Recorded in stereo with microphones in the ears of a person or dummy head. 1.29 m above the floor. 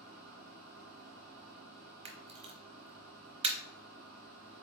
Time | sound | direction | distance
0.0 | a machine running | 50° right (ahead or behind) | 1.2 m
2.0 | a camera shutter | 30° right (ahead or behind) | 0.7 m